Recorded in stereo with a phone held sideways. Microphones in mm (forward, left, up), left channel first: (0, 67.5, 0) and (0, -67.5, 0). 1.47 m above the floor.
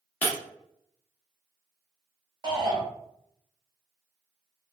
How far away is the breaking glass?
About 0.9 m.